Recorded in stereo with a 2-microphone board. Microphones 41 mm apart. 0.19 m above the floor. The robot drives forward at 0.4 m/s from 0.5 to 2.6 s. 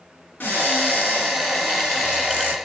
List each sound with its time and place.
0.4 s a cupboard door: 45° left (ahead or behind), 1.3 m; by 2.5 s 55° left (ahead or behind), 1.2 m